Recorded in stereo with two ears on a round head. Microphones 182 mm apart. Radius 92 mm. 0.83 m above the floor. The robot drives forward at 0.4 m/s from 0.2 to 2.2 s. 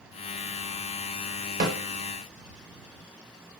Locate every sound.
1.6 s a snare drum: 45° right (ahead or behind), 1.1 m